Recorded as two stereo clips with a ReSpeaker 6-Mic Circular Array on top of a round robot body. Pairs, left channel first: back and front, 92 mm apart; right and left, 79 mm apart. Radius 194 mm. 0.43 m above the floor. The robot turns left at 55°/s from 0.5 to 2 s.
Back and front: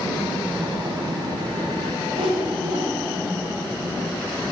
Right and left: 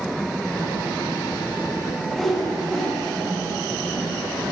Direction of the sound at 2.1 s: Straight ahead.